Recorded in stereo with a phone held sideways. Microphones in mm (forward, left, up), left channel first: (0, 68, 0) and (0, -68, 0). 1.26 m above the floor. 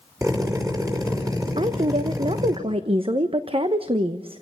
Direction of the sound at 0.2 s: 25° right (ahead or behind).